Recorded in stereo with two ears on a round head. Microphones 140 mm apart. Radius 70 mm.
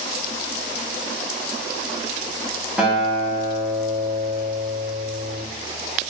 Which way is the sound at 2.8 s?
5° right (ahead or behind).